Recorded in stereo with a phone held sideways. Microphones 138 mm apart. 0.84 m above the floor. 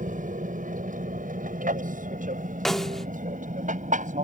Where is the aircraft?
70° right (ahead or behind); by 4.2 s 65° right (ahead or behind).